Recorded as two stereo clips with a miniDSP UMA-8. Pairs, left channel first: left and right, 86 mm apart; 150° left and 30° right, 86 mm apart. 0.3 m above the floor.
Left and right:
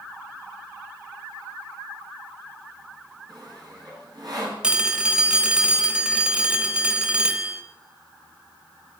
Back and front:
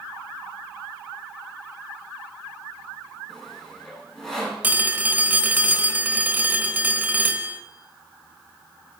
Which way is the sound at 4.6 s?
35° right.